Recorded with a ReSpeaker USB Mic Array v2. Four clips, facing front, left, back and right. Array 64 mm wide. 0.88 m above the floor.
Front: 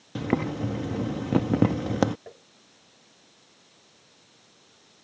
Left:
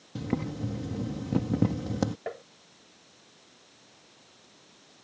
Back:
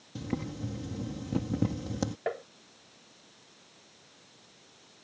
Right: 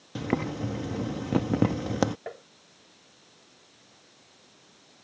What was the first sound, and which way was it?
Boiling, 30° right.